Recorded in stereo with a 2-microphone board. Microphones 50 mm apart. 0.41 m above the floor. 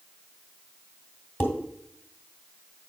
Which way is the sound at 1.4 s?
40° left (ahead or behind).